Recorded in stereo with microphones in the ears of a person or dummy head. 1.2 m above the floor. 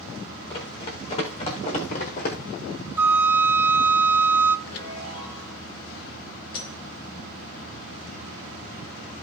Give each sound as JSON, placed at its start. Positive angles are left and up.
{"t": 0.5, "sound": "running footsteps", "side_deg": 30, "distance_m": 5.5}
{"t": 3.0, "sound": "a flute", "side_deg": -10, "distance_m": 0.6}
{"t": 4.7, "sound": "a chime", "side_deg": 75, "distance_m": 1.7}
{"t": 6.5, "sound": "breaking glass", "side_deg": 30, "distance_m": 5.5}